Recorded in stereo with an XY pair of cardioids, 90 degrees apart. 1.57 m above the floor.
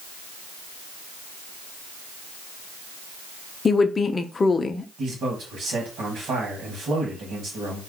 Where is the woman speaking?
35° left, 0.6 m.